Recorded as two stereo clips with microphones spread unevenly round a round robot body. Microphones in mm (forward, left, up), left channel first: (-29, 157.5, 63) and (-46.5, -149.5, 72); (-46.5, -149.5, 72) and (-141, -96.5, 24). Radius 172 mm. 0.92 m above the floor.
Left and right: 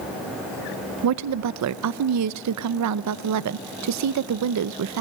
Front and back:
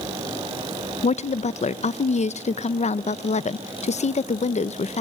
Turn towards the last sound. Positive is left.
turn(degrees=-70)